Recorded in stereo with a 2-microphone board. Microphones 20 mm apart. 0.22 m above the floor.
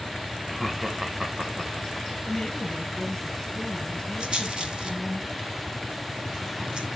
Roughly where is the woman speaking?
Left.